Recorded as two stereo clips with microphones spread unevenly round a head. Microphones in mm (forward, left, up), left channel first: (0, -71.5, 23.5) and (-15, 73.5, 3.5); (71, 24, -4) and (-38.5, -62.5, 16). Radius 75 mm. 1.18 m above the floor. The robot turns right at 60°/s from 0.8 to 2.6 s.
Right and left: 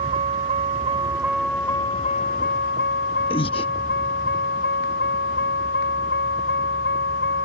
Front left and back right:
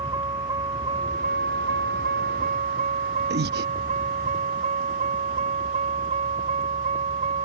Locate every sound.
0.0 s a vehicle: 145° left; by 7.5 s 95° right
3.3 s breathing: 140° right